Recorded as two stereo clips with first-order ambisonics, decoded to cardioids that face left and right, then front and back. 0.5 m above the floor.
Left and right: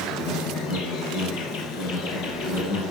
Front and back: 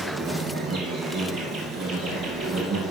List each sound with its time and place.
0.0 s an insect: 120° left, 1.8 m